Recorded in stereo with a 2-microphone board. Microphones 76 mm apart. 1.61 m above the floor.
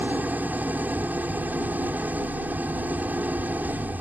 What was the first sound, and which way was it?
An engine running, 25° right (ahead or behind).